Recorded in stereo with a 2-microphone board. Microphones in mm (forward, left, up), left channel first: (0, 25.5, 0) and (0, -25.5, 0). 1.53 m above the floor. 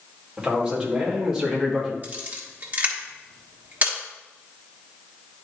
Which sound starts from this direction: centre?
A man speaking, at 0.4 s.